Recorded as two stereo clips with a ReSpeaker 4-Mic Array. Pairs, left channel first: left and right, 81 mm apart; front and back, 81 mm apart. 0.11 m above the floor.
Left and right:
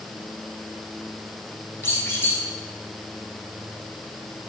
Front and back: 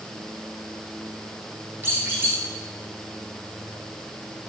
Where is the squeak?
135° left, 1.3 m.